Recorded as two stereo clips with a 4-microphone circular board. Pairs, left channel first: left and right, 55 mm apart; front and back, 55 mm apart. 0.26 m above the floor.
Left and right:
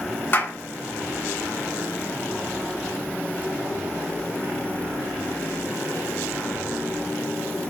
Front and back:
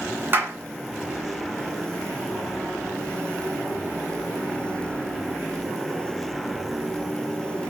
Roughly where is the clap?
Behind left.